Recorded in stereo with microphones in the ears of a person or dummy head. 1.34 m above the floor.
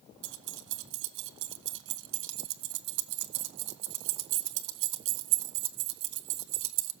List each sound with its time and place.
0.2 s keys jangling: 60° right (ahead or behind), 0.9 m